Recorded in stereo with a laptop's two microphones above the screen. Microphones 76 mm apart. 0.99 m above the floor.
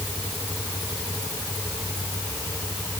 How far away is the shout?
No shout in this recording.